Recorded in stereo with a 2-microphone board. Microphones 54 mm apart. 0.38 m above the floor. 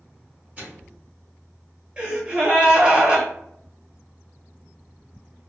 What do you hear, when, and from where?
0.6 s a microwave: 35° right (ahead or behind), 1.4 m
2.0 s a gasp: 25° right (ahead or behind), 1.1 m